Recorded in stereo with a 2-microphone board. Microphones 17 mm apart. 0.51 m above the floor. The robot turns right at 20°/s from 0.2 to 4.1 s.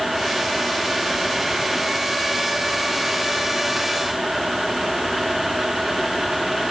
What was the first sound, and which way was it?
Only background noise.